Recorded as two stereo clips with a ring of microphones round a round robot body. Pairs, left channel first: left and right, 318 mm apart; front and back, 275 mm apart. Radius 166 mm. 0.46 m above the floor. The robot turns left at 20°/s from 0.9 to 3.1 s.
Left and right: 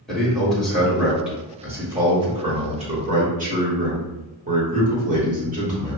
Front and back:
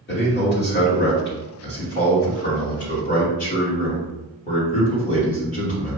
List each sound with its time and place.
0.1 s a man speaking: 5° left, 1.7 m; by 6.0 s 40° right, 1.7 m